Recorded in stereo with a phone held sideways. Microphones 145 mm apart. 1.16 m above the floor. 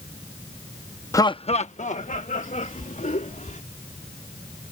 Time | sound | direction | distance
1.1 | laughter | 20° left (ahead or behind) | ?